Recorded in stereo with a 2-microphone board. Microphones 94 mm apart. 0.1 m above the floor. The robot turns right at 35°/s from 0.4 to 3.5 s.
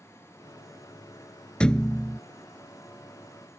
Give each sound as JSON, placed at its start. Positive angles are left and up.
{"t": 1.6, "sound": "a thud", "side_deg": 10}